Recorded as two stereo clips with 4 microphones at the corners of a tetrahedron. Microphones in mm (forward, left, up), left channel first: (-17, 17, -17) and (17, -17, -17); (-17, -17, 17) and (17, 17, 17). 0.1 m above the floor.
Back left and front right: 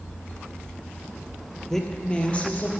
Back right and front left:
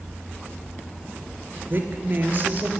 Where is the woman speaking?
55° left, 1.6 m; by 2.7 s 90° left, 2 m.